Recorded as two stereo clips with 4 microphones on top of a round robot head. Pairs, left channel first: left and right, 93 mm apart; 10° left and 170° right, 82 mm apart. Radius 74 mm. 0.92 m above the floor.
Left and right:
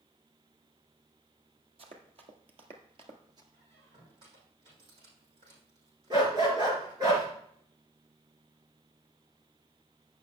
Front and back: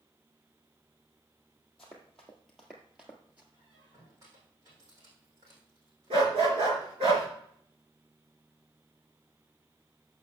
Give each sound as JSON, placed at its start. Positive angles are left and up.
{"t": 1.8, "sound": "running footsteps", "azimuth_deg": -75, "distance_m": 1.8}
{"t": 3.5, "sound": "a squeak", "azimuth_deg": -110, "distance_m": 5.5}
{"t": 6.1, "sound": "a dog barking", "azimuth_deg": -145, "distance_m": 3.5}